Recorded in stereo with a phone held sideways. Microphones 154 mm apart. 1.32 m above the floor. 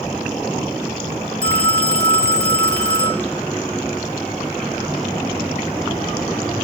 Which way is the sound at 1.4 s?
75° left (ahead or behind).